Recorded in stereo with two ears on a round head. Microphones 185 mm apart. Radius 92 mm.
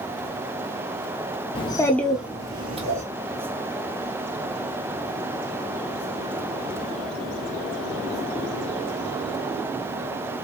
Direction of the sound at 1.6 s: 25° left (ahead or behind).